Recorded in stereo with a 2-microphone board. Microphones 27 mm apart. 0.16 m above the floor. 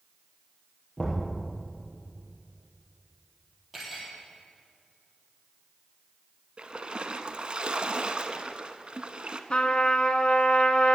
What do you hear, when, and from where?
1.0 s knocking: 35° left (ahead or behind), 3.5 m
3.7 s cutlery clinking: 10° right (ahead or behind), 3 m
6.6 s a splash: 40° right (ahead or behind), 0.6 m
9.5 s a trumpet: 45° left (ahead or behind), 0.7 m